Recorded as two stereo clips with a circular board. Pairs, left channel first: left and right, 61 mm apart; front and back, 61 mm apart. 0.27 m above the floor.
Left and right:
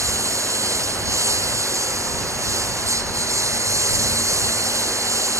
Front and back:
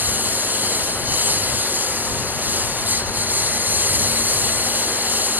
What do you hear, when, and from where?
0.0 s a lawn mower: 120° right